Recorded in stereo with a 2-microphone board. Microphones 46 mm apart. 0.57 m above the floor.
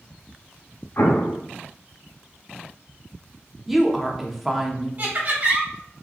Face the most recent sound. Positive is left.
turn(degrees=-40)  # may be behind; listen again after turning